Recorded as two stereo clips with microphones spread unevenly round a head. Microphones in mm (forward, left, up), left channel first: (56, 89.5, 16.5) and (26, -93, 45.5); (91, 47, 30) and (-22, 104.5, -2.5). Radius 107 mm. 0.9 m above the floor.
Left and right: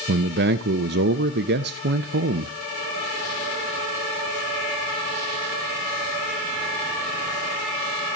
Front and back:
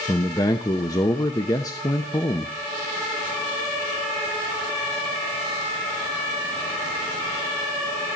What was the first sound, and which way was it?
A man speaking, 100° right.